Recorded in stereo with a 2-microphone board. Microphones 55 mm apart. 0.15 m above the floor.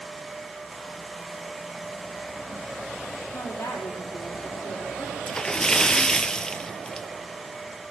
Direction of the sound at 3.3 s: 65° left (ahead or behind).